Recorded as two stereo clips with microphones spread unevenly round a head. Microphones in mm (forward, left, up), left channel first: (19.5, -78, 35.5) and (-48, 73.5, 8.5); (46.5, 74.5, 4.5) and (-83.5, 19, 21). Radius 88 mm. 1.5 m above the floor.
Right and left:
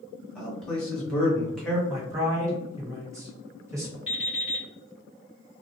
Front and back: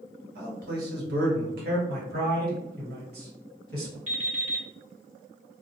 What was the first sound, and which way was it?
A man speaking, 150° right.